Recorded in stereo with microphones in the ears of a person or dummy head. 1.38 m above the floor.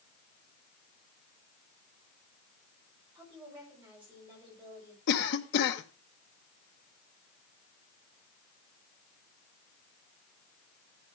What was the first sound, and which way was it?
A woman speaking, 10° right (ahead or behind).